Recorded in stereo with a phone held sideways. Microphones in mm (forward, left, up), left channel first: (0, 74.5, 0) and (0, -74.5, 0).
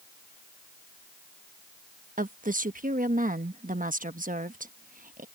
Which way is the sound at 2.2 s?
65° right (ahead or behind).